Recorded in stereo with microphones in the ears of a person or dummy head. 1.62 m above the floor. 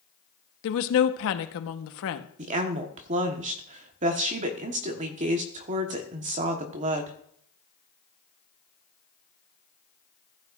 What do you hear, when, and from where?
0.6 s a woman speaking: 70° left (ahead or behind), 1.1 m
2.4 s a woman speaking: 35° right (ahead or behind), 1.3 m